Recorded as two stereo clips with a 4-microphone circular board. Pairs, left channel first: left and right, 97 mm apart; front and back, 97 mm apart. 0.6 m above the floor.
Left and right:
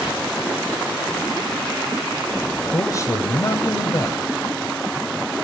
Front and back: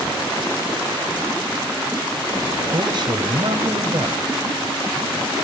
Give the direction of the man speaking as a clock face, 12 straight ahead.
7 o'clock.